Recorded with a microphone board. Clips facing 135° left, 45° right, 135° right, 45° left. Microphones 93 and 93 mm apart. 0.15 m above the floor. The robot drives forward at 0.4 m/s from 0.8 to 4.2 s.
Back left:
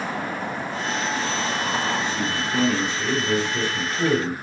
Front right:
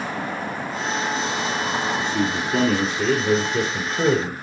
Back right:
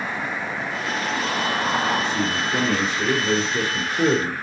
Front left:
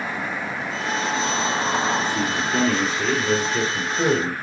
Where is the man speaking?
60° right, 3 m; by 4.3 s 80° right, 3 m.